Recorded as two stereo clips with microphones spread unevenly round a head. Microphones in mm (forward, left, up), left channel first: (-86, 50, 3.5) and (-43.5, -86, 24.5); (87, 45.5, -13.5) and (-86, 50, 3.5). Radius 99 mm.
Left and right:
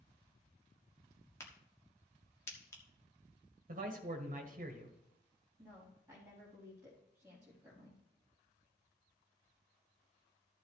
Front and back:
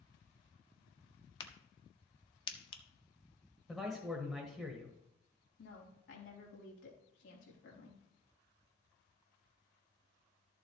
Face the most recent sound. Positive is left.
turn(degrees=5)